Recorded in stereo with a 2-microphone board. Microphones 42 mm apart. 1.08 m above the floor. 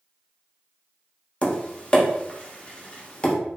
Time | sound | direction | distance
1.4 | tapping | 25° left (ahead or behind) | 0.6 m